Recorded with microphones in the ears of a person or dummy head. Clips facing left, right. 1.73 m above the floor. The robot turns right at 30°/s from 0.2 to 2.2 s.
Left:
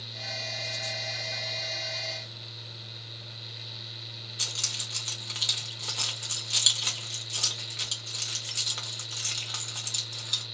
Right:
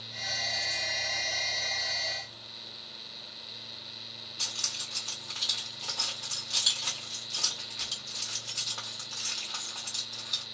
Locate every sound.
4.4 s keys jangling: 35° left (ahead or behind), 1.0 m